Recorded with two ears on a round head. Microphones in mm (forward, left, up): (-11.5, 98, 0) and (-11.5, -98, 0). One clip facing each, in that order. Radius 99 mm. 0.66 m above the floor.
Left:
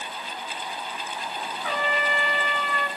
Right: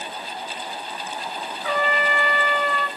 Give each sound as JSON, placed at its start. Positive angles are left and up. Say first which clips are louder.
{"t": 1.6, "sound": "a trumpet", "louder": "right 5 dB", "side_deg": -55, "distance_m": 2.0}